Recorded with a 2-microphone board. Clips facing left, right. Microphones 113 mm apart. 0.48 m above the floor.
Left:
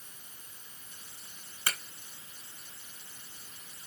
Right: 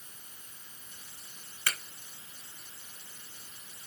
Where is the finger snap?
25° left (ahead or behind), 1.1 m.